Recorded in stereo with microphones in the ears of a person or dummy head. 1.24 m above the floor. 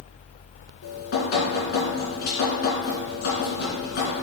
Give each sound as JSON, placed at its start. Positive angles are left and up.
{"t": 0.8, "sound": "dripping", "side_deg": 55, "distance_m": 3.0}